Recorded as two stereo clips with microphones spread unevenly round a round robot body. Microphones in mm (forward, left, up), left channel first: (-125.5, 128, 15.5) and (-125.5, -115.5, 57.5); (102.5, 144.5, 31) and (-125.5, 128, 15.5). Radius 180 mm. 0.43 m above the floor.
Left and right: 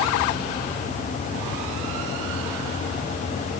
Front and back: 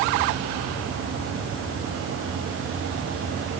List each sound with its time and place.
Only background noise.